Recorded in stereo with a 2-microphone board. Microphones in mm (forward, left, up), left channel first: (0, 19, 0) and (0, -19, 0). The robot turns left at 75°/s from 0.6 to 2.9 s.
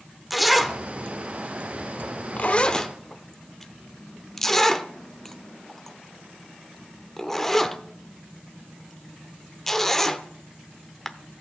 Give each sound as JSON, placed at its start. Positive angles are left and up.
{"t": 0.3, "sound": "a zipper", "side_deg": 0, "distance_m": 0.8}